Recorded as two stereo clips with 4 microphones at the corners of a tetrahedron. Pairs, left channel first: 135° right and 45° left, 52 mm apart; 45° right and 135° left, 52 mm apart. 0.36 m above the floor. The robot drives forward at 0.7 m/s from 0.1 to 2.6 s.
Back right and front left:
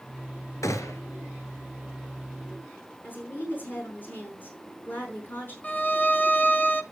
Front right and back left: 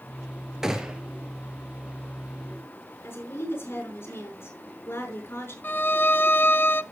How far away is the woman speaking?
About 5 m.